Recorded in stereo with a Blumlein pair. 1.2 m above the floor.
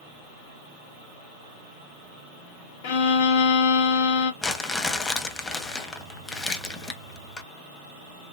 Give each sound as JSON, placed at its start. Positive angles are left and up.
{"t": 2.8, "sound": "a violin", "azimuth_deg": 50, "distance_m": 0.9}
{"t": 4.4, "sound": "crumpling", "azimuth_deg": 15, "distance_m": 1.0}